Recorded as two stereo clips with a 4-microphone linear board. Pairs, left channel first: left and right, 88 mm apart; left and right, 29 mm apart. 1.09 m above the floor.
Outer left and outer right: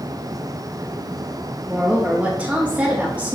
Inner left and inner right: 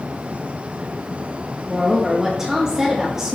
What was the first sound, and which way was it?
A woman speaking, 15° right (ahead or behind).